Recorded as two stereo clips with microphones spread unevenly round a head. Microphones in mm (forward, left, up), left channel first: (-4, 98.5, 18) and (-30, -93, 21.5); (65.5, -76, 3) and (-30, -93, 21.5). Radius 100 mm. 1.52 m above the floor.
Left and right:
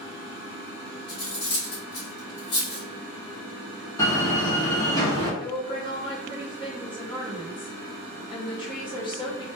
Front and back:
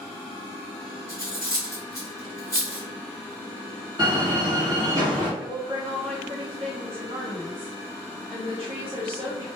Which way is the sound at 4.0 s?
155° left.